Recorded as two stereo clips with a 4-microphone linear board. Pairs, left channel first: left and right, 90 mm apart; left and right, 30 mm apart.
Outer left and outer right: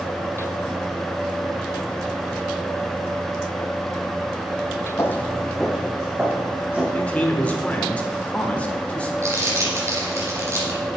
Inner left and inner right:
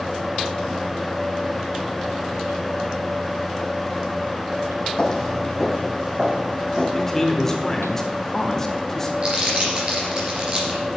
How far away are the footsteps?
About 0.7 m.